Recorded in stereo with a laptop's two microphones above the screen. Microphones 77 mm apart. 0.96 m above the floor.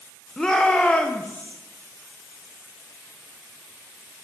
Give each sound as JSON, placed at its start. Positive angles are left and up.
{"t": 0.4, "sound": "a shout", "side_deg": 5, "distance_m": 0.5}